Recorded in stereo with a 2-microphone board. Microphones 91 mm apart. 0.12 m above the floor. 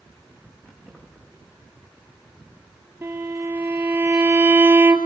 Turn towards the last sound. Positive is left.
turn(degrees=-20)  # may be behind; listen again after turning